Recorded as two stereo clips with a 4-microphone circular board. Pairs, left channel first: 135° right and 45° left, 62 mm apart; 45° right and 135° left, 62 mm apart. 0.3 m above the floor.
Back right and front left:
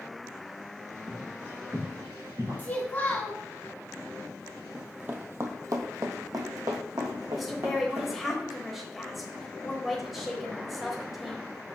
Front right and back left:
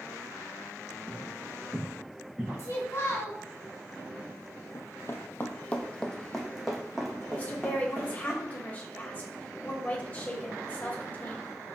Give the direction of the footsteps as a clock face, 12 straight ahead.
10 o'clock.